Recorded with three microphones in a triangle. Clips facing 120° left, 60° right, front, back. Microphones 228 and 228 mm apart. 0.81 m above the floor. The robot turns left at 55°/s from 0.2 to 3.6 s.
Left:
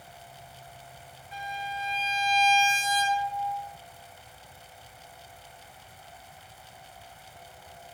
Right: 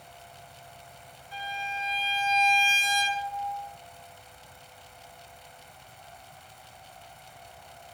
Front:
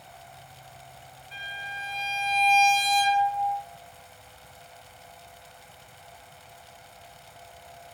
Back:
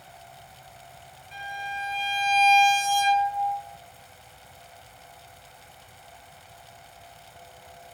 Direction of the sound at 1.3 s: 140° right.